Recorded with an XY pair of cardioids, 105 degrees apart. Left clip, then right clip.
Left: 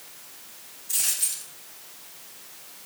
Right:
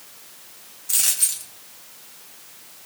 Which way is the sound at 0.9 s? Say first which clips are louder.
Right 5 dB; 70° right.